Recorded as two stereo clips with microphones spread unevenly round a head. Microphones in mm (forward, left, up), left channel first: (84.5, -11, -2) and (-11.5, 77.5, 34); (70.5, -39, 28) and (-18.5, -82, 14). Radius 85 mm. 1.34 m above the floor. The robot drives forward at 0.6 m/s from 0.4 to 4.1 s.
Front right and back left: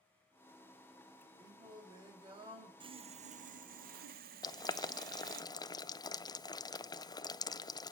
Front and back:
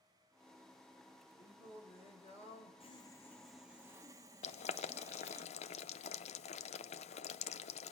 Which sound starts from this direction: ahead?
Boiling, at 4.4 s.